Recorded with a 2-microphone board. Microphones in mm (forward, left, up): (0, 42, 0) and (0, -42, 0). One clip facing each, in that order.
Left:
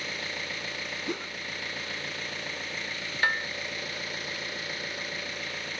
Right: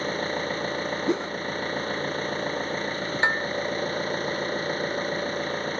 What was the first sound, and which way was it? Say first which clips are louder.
An engine running: right 9 dB; 40° right (ahead or behind).